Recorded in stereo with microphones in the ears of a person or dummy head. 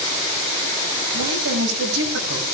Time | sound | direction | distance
1.1 | a woman speaking | 85° right | 7.5 m